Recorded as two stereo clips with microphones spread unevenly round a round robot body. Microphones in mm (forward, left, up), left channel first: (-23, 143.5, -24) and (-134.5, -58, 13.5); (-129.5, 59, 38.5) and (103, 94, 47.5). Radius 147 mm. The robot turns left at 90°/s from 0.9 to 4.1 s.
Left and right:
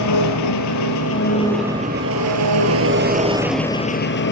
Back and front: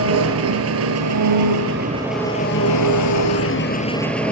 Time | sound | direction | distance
0.0 | an engine running | 30° left | 3.5 m